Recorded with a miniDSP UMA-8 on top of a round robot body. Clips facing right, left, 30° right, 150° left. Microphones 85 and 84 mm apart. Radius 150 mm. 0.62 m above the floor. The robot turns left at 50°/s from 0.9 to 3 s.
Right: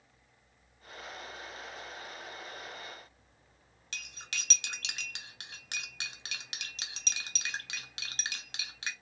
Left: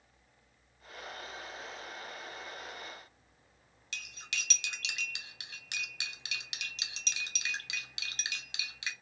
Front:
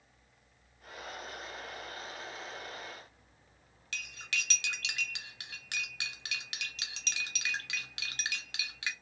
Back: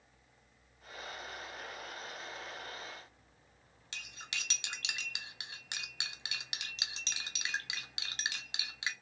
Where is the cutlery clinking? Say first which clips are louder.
Left 1 dB, front 6 dB; 140° right, 0.7 m.